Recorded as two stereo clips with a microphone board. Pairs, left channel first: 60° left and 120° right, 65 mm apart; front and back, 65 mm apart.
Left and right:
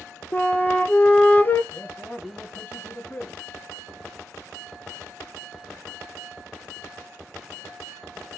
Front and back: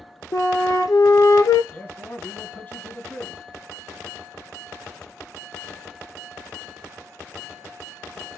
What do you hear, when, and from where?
0.3 s a flute: straight ahead, 0.7 m
1.7 s a man speaking: 30° left, 1.4 m